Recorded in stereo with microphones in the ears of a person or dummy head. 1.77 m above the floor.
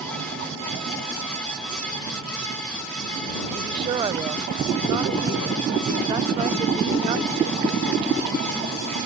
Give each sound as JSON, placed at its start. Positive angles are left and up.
{"t": 3.5, "sound": "a woman speaking", "side_deg": -30}